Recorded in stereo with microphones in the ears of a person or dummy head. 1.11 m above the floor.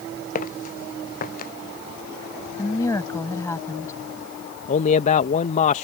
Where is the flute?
No flute in this recording.